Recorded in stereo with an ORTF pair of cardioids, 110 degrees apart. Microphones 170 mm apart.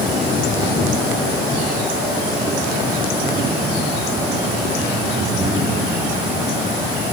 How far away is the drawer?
I don't hear a drawer.